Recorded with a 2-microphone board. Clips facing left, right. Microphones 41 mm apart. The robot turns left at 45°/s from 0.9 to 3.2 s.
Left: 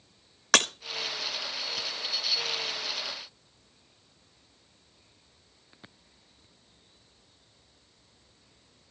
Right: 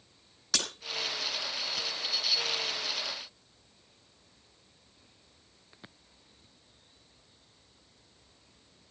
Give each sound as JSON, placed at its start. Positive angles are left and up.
{"t": 0.5, "sound": "breaking glass", "side_deg": 55, "distance_m": 1.5}